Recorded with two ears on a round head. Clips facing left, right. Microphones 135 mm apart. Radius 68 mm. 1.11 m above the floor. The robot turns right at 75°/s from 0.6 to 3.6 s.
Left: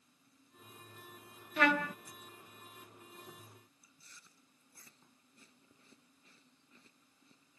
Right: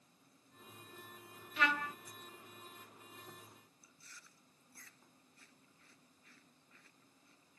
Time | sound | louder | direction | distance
1.6 | a trumpet | left 6 dB | 40° left (ahead or behind) | ?
3.8 | chewing | right 2 dB | 20° left (ahead or behind) | ?